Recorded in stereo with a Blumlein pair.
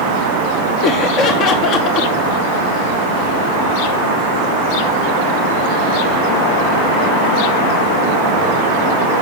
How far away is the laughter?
About 1.2 m.